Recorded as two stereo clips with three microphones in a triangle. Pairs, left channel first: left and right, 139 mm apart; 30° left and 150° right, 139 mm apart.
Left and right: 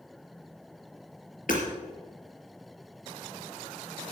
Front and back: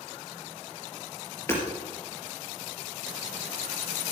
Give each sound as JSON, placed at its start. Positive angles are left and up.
{"t": 1.5, "sound": "hammering", "azimuth_deg": 100, "distance_m": 4.0}